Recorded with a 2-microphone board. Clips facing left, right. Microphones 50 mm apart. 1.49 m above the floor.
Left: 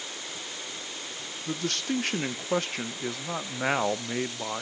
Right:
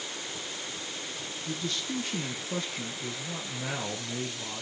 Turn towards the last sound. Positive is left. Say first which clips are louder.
# left 5 dB
turn(degrees=60)  # may be behind; listen again after turning